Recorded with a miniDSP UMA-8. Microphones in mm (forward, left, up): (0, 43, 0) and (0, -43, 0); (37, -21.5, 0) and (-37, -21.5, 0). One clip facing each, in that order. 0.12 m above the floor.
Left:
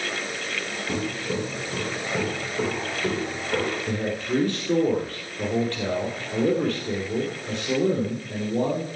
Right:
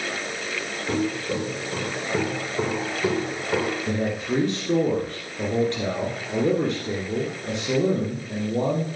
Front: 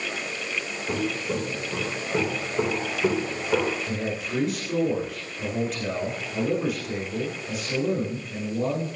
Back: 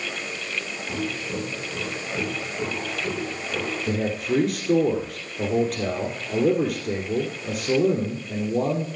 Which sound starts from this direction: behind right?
A man speaking, at 3.9 s.